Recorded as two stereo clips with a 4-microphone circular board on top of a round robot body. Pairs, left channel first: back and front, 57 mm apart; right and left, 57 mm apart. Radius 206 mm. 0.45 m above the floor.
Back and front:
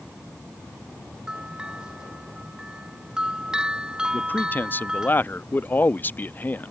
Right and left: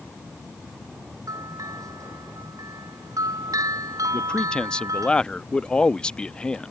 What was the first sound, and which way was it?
A bell, 75° left.